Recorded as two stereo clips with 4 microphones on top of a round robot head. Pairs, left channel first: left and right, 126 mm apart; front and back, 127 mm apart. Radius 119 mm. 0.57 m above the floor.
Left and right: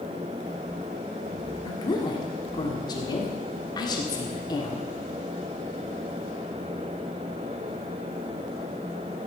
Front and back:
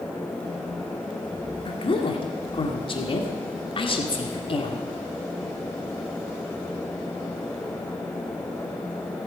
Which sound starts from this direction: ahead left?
A woman speaking, at 1.6 s.